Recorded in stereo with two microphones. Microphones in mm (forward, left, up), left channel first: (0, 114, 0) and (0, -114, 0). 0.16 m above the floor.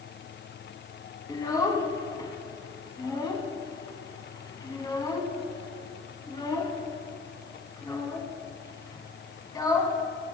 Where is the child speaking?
15° left (ahead or behind), 0.6 m.